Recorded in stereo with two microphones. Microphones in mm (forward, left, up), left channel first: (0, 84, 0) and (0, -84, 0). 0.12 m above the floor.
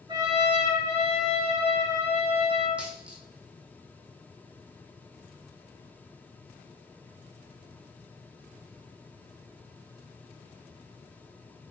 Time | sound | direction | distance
0.1 | a trumpet | 30° right (ahead or behind) | 1.0 m
2.8 | a dropped coin | 5° right (ahead or behind) | 1.1 m